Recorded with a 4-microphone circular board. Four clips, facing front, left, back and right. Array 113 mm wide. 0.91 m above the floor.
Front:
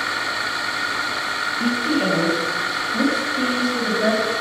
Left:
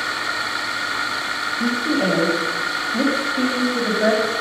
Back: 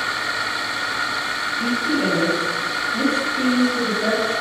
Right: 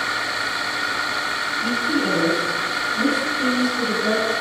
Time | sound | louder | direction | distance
1.6 | a woman speaking | left 2 dB, front 1 dB | 75° left | 7 m